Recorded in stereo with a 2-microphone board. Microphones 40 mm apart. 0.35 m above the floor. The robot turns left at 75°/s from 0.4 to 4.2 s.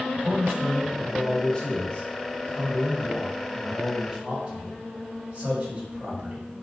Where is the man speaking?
125° right, 1.9 m; by 6.5 s 50° right, 1.9 m.